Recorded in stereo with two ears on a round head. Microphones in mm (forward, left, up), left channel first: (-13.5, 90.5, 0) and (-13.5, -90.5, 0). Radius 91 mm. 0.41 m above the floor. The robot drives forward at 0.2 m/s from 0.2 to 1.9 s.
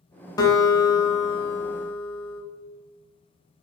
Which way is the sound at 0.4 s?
20° left (ahead or behind).